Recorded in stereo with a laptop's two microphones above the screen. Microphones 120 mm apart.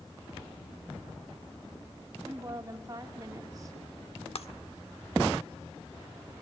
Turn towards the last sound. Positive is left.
turn(degrees=60)  # may be behind; listen again after turning